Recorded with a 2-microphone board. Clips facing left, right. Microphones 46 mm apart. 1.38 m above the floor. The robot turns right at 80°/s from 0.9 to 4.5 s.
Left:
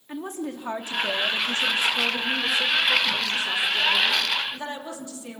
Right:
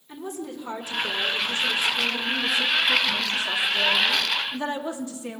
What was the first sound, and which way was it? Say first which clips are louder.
A woman speaking: left 2 dB; 45° left.